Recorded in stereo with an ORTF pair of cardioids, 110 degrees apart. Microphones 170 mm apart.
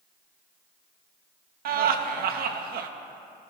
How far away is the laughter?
About 1.7 m.